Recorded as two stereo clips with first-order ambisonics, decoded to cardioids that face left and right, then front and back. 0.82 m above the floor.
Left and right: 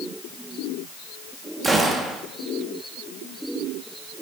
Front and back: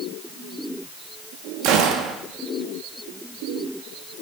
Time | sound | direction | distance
1.6 | a gunshot | 170° right | 1.3 m